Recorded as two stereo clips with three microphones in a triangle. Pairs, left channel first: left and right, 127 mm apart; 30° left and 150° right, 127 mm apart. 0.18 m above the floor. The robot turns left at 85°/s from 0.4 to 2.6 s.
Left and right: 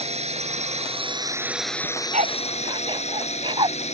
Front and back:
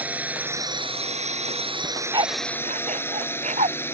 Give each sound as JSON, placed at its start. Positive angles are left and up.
{"t": 0.0, "sound": "a drone", "azimuth_deg": -75}
{"t": 1.8, "sound": "a dog barking", "azimuth_deg": -70}